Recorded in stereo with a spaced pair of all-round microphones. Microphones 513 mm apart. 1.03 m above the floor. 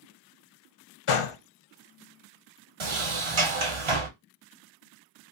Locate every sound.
1.1 s a gunshot: 70° left (ahead or behind), 0.5 m
2.8 s a sliding door: 60° right (ahead or behind), 0.7 m